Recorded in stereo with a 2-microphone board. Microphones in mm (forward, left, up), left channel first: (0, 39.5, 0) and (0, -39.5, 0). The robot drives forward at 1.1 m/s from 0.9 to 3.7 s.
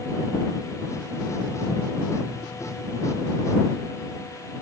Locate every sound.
Only background noise.